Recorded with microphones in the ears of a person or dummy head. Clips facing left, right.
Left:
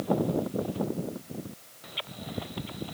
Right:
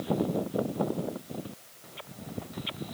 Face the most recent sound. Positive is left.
No sound to turn to.